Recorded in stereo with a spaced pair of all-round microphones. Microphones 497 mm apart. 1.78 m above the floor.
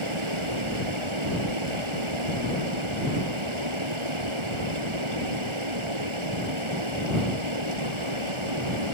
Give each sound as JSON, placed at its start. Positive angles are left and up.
{"t": 0.0, "sound": "running water", "side_deg": -75}